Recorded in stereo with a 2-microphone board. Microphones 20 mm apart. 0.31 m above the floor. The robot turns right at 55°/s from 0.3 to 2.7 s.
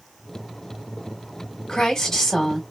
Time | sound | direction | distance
1.7 | a woman speaking | 120° left | 2.5 m